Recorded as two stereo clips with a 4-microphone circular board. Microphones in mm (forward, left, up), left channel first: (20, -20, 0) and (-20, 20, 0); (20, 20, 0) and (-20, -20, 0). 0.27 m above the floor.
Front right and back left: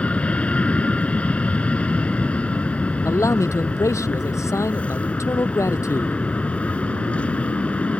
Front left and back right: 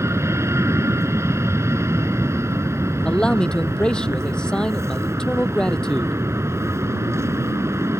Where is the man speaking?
30° right.